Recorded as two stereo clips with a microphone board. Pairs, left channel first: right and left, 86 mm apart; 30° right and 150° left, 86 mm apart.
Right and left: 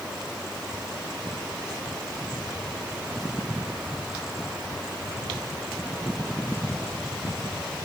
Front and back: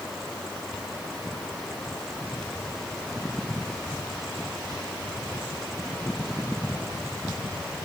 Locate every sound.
Only background noise.